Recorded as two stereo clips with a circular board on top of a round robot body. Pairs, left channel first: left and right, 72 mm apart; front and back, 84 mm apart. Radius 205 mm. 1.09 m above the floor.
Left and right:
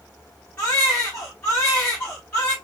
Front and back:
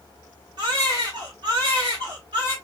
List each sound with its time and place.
0.6 s a baby crying: 160° left, 0.6 m